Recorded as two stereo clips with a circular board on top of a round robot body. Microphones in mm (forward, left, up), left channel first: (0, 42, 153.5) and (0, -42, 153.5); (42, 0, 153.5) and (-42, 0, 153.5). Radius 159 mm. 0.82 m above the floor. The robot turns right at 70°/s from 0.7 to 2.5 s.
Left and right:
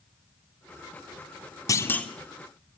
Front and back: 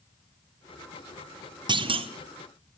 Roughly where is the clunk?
Behind left.